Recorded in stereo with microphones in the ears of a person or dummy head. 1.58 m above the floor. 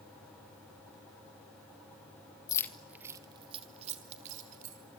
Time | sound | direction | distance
2.5 | keys jangling | 25° left (ahead or behind) | 1.0 m